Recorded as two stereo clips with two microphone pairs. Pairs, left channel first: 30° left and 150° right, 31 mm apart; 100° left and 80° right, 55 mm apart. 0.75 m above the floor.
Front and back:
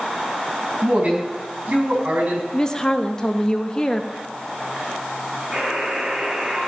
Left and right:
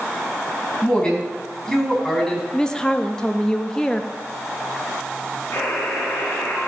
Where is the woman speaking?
50° left, 1.0 m.